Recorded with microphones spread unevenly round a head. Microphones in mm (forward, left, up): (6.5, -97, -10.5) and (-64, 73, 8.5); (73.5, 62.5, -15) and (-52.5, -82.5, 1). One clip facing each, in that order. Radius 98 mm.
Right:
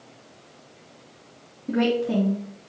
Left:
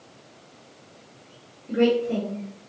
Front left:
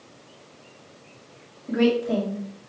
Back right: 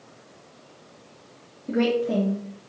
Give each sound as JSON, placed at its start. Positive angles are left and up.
{"t": 1.7, "sound": "a woman speaking", "azimuth_deg": -65, "distance_m": 1.8}